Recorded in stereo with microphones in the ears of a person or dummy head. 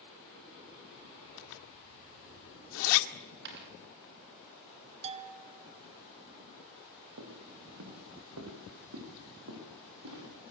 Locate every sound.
1.4 s a zipper: 75° left (ahead or behind), 1.9 m
3.1 s a dropped coin: 55° right (ahead or behind), 7.5 m
5.0 s a bell: 30° right (ahead or behind), 1.5 m
7.2 s footsteps: 80° right, 6 m